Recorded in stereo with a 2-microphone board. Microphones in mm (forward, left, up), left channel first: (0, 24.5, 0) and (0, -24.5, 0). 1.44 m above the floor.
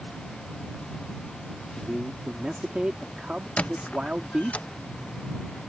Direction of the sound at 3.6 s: 30° left (ahead or behind).